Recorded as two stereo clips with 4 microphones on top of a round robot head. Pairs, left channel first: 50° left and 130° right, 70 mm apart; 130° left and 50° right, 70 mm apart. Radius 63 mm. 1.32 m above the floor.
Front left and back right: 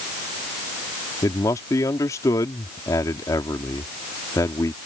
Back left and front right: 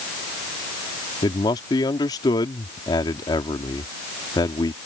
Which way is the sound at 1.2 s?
95° left.